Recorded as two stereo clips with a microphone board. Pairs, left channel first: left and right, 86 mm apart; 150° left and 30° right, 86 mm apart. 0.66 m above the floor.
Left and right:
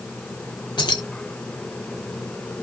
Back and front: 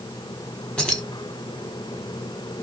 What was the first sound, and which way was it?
Keys jangling, 70° left.